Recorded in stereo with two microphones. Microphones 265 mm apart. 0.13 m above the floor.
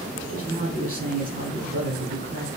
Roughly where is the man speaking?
Right.